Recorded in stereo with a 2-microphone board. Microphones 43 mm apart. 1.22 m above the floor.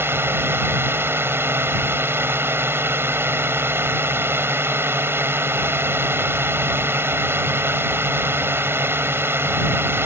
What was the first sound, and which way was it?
A drone, 65° right (ahead or behind).